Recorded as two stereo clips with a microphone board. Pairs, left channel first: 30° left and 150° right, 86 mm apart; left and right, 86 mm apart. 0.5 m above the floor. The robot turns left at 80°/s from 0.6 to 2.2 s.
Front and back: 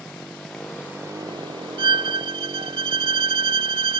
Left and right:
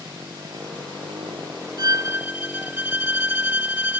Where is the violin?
125° right; by 4.0 s 160° right.